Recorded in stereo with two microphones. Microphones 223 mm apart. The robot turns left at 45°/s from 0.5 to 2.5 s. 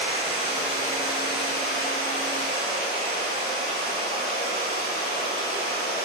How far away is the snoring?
I don't hear snoring.